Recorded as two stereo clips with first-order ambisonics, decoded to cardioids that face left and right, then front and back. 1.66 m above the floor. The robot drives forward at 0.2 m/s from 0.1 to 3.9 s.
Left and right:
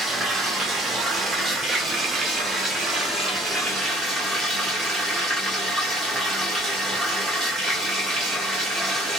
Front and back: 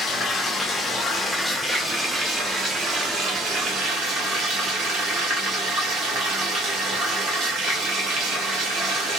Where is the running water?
50° right, 0.8 m; by 9.2 s 150° right, 0.9 m.